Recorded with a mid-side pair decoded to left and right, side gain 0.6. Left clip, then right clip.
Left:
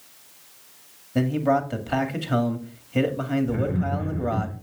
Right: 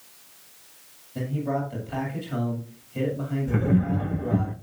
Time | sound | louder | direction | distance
1.1 | a man speaking | left 7 dB | 55° left | 2 m
3.5 | laughter | even | 60° right | 1.3 m